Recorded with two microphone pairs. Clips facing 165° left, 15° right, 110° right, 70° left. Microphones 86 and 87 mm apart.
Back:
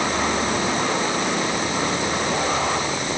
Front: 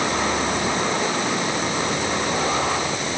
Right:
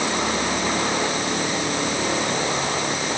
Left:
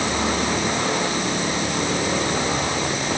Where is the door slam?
I don't hear a door slam.